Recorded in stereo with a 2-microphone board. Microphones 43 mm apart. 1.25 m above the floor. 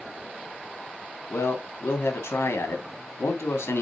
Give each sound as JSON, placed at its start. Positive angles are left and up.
{"t": 1.3, "sound": "a man speaking", "side_deg": 75, "distance_m": 2.5}